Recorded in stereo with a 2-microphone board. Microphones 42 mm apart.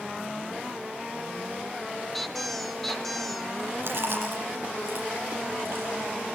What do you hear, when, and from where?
2.1 s a squeak: centre (ahead or behind), 1.5 m
3.8 s chewing: 65° right (ahead or behind), 7.5 m